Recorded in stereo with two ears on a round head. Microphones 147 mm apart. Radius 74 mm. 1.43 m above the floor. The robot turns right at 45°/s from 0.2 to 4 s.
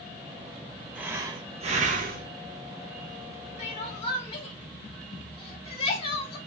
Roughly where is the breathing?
Behind.